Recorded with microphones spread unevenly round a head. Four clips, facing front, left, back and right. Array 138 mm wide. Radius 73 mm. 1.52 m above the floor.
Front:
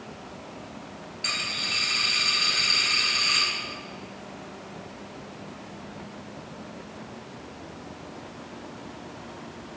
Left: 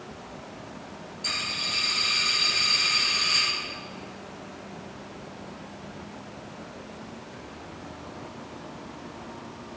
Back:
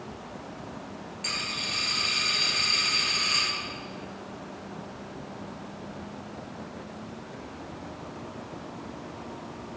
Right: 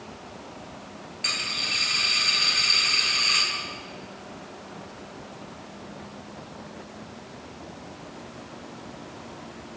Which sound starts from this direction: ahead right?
A dropped coin, at 1.2 s.